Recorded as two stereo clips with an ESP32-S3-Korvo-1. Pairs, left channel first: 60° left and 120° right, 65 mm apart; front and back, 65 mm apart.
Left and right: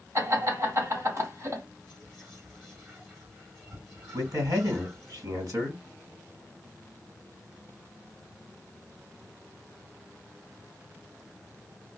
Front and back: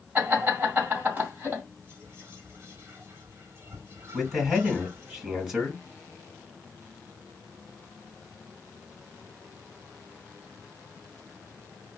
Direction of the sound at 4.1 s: 95° right.